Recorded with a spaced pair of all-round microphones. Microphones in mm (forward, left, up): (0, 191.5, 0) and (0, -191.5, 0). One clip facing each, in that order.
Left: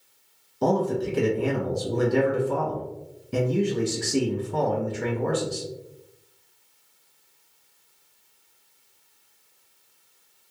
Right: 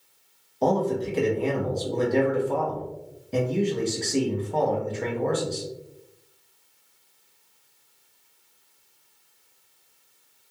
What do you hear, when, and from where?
0.6 s a man speaking: 20° left (ahead or behind), 0.7 m